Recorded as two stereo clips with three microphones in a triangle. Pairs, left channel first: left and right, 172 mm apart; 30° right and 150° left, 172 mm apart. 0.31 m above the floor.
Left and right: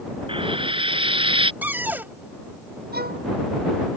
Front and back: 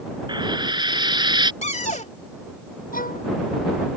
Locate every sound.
0.3 s frying: 145° right
1.6 s a cupboard door: 15° right
2.9 s a violin: 65° right